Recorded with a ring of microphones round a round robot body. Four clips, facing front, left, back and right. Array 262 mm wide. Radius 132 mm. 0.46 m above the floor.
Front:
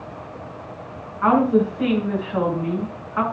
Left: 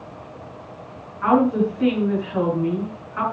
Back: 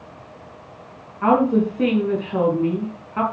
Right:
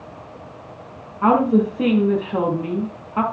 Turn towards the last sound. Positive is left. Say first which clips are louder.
# right 2 dB, even
turn(degrees=-125)